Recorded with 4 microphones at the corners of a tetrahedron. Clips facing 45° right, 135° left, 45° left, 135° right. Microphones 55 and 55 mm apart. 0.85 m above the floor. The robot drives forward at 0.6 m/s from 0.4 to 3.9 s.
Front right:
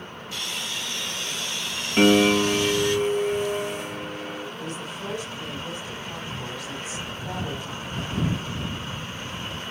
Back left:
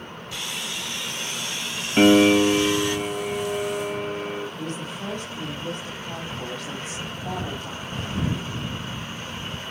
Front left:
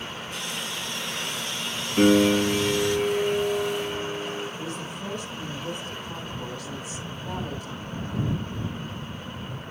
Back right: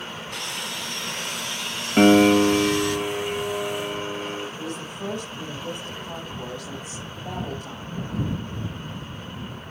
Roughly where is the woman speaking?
Behind.